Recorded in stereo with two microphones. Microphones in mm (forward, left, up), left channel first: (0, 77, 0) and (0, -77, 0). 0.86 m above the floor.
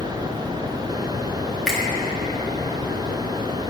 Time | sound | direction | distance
1.7 | a finger snap | centre (ahead or behind) | 1.2 m